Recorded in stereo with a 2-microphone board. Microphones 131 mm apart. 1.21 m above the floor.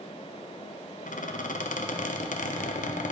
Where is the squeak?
75° left (ahead or behind), 0.5 m.